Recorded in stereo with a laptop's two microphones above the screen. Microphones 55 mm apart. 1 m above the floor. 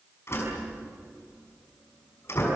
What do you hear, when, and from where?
0.3 s a door slam: 50° left (ahead or behind), 6 m